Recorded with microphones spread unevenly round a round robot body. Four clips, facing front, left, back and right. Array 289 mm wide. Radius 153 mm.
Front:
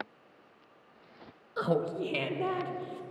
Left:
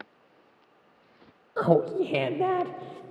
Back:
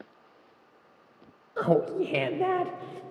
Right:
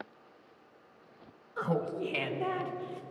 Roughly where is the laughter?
Left.